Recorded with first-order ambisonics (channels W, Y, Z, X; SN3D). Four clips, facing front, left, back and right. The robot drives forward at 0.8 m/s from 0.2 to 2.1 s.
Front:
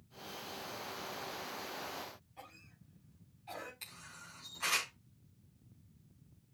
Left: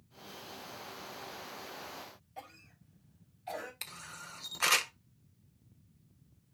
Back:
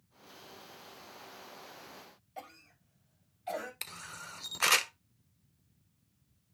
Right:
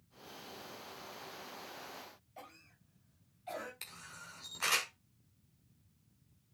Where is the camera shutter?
155° left, 1.0 m.